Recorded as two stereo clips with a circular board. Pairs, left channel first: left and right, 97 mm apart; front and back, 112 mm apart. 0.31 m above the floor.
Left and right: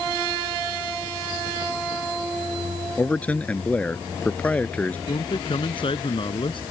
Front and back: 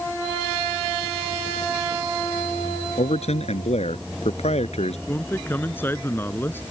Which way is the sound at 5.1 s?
70° left.